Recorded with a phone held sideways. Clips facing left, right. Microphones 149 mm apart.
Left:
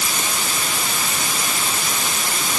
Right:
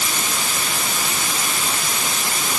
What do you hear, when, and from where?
Only background noise.